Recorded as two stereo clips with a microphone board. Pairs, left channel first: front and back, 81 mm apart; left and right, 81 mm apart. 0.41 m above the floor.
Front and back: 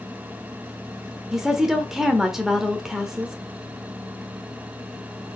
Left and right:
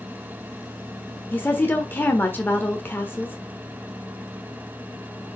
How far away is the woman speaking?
About 1.2 m.